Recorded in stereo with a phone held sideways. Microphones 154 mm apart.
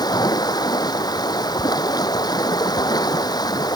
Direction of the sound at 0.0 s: 25° left (ahead or behind).